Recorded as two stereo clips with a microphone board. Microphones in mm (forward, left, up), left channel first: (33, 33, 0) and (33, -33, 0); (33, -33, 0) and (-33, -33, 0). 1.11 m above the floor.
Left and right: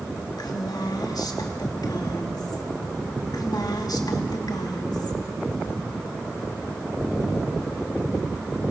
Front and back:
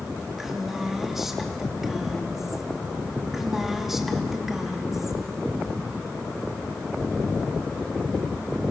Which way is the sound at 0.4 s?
95° left.